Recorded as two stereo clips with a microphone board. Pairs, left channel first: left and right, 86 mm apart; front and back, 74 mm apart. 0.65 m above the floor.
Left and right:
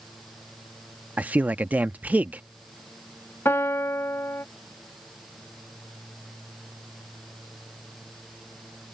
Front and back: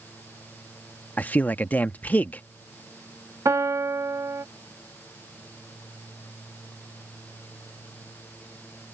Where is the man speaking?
40° right.